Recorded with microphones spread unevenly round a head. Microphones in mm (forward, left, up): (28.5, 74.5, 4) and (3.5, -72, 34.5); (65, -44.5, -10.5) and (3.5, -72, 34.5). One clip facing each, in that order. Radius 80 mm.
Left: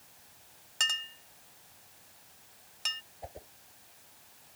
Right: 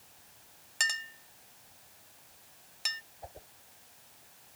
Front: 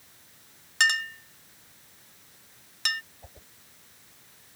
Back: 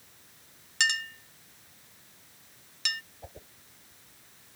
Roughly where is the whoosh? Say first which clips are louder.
Left 3 dB, back 5 dB; behind left.